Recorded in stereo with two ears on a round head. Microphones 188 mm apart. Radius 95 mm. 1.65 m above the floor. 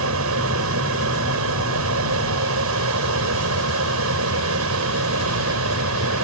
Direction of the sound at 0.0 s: 65° right (ahead or behind).